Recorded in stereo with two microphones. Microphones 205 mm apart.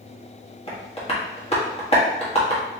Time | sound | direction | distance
0.7 | tapping | 30° left (ahead or behind) | 1.3 m